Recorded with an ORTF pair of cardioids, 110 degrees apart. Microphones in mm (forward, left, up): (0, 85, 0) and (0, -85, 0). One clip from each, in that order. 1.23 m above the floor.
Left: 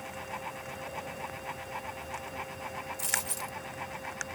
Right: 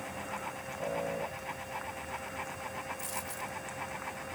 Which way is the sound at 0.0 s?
10° left.